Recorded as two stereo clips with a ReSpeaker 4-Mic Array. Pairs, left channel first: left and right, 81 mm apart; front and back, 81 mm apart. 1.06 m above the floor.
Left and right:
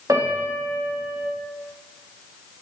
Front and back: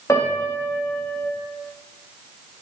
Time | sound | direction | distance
0.1 | a piano | 45° right | 2 m